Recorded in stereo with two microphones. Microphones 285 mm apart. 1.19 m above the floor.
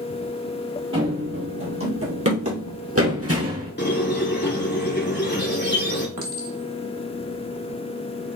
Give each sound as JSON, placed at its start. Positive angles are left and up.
{"t": 0.9, "sound": "running footsteps", "side_deg": -40, "distance_m": 2.5}
{"t": 3.8, "sound": "a squeak", "side_deg": 35, "distance_m": 1.4}
{"t": 6.2, "sound": "a clink", "side_deg": -80, "distance_m": 1.4}